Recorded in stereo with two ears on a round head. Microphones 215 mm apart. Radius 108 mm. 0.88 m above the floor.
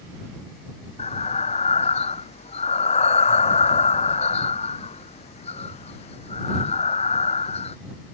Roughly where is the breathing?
Left.